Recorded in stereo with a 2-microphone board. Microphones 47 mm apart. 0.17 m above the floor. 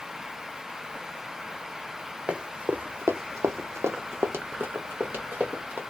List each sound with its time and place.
2.3 s running footsteps: 20° right (ahead or behind), 0.7 m; by 5.8 s 40° right (ahead or behind), 1.5 m